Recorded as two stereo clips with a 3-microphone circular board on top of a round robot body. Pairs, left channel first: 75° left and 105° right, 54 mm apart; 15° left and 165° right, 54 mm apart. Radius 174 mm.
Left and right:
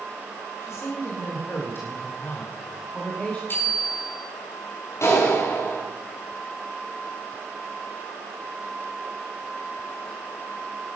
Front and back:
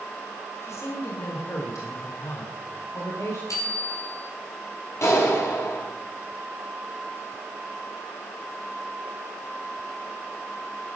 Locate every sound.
0.6 s a woman speaking: 40° left, 3.5 m; by 3.4 s 5° left, 3 m
3.5 s a bicycle bell: 25° left, 5.5 m
5.0 s a clap: 40° left, 7.5 m